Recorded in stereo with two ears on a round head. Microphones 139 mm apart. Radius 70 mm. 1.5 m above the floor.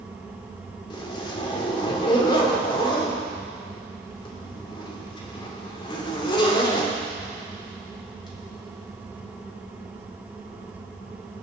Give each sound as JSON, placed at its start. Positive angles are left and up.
{"t": 0.9, "sound": "a zipper", "side_deg": 30, "distance_m": 3.0}